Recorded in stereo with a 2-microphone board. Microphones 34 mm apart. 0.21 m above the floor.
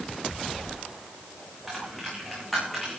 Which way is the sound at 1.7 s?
Centre (ahead or behind).